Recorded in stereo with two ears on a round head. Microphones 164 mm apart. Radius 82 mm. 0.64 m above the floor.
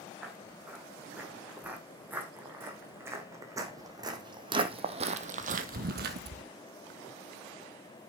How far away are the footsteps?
About 4 m.